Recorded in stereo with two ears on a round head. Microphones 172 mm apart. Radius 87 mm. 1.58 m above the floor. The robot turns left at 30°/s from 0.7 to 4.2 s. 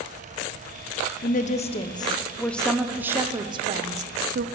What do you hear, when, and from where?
1.2 s a woman speaking: 45° left, 0.9 m; by 4.5 s 45° right, 0.9 m